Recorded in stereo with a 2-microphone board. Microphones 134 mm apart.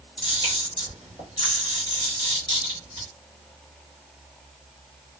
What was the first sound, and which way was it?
A camera shutter, 35° left (ahead or behind).